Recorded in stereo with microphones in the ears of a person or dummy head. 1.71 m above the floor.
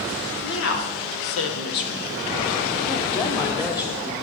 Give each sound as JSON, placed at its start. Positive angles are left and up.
{"t": 0.4, "sound": "a woman speaking", "side_deg": 70, "distance_m": 1.6}